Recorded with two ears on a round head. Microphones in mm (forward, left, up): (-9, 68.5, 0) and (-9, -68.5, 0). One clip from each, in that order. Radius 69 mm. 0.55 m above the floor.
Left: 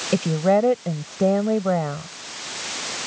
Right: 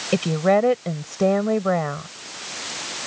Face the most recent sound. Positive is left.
turn(degrees=-35)  # may be behind; listen again after turning